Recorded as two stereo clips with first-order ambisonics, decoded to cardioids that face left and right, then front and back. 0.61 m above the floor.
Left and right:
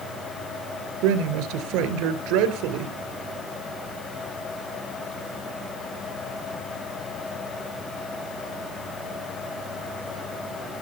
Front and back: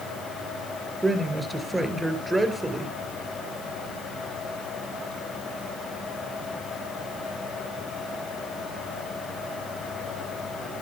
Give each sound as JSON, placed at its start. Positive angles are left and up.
{"t": 1.0, "sound": "a man speaking", "azimuth_deg": -100, "distance_m": 3.0}